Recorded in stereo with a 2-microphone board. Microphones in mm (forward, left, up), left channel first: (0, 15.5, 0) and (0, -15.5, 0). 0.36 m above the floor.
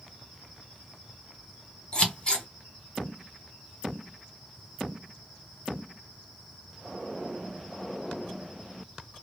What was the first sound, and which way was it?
Scissors, 30° left (ahead or behind).